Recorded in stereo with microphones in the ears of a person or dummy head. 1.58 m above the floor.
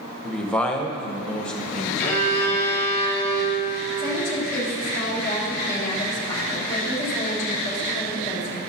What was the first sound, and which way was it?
A man speaking, 5° left (ahead or behind).